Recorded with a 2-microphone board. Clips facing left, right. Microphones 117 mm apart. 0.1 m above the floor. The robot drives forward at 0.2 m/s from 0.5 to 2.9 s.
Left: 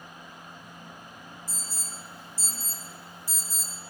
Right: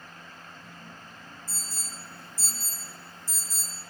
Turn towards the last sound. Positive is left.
turn(degrees=-60)  # may be behind; listen again after turning